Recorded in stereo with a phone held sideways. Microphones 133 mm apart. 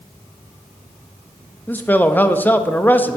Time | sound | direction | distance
1.7 | a man speaking | 15° left (ahead or behind) | 0.5 m